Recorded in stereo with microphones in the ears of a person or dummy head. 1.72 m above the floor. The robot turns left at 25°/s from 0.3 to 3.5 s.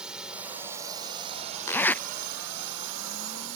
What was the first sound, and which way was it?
A drone, 5° right.